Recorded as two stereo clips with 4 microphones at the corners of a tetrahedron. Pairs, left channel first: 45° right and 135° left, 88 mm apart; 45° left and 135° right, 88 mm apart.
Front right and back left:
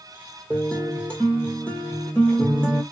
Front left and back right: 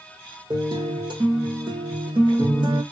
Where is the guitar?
120° right, 1.1 m.